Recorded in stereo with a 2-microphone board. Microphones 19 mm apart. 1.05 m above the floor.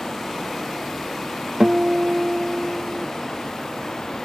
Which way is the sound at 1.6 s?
60° right (ahead or behind).